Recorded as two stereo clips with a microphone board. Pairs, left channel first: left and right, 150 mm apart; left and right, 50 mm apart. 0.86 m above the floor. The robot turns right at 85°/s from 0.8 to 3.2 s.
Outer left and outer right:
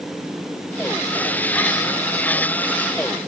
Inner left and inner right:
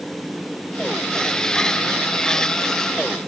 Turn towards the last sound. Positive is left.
No sound to turn to.